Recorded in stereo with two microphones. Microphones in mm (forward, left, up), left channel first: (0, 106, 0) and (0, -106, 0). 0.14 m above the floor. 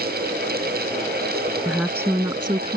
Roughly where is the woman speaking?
Centre.